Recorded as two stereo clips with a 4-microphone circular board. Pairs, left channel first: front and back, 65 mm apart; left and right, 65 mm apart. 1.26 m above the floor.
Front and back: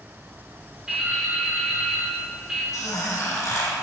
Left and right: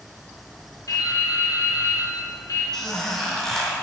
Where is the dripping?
100° left, 1.6 m.